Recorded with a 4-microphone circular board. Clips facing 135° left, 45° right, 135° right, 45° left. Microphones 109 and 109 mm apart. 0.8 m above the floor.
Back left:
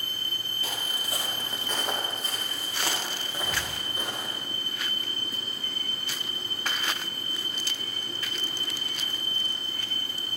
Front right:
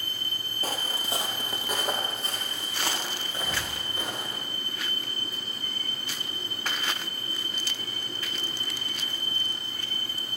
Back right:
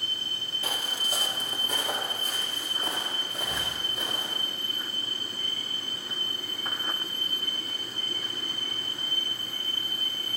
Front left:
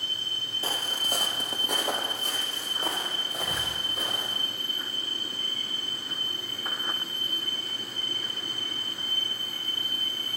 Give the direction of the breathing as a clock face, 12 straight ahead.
11 o'clock.